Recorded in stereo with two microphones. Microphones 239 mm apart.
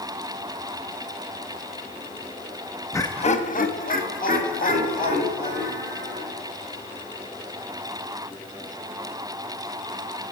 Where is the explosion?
I don't hear an explosion.